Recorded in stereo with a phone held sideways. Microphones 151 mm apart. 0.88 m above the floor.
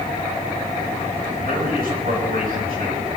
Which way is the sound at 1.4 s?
75° right (ahead or behind).